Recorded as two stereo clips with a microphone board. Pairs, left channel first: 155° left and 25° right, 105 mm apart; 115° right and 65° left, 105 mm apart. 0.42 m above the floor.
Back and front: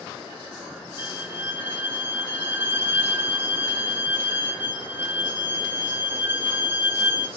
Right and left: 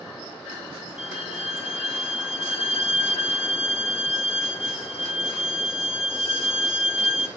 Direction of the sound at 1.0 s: 90° right.